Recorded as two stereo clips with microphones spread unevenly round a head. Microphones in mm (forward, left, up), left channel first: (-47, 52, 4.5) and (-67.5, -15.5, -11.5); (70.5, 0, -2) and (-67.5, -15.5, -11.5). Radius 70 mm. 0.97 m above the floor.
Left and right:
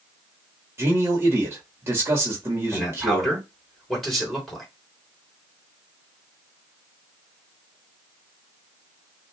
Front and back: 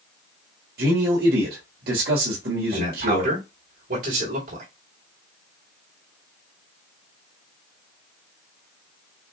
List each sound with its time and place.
0.8 s a man speaking: 160° right, 1.6 m
2.7 s a man speaking: 160° left, 3.5 m